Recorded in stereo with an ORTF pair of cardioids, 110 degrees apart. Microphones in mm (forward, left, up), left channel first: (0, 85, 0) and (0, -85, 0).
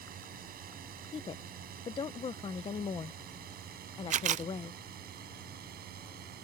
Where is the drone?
60° right; by 6.4 s 65° right.